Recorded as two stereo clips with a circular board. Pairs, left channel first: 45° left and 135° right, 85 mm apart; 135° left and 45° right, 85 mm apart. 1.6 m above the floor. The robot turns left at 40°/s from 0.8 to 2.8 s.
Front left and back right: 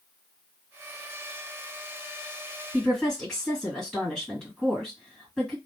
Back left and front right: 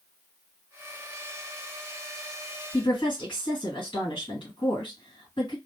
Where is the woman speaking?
130° left, 1.8 m.